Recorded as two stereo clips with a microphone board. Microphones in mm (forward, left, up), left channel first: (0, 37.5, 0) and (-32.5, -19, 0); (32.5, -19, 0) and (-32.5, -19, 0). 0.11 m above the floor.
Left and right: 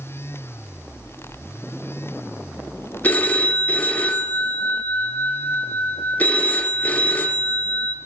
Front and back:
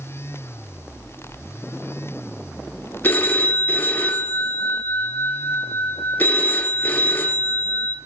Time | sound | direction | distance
3.0 | a phone ringing | 25° left | 0.9 m